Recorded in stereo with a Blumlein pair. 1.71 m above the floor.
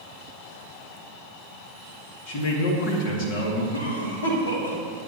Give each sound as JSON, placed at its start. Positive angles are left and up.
{"t": 2.3, "sound": "a man speaking", "azimuth_deg": 45, "distance_m": 2.5}
{"t": 3.7, "sound": "a cough", "azimuth_deg": 65, "distance_m": 3.0}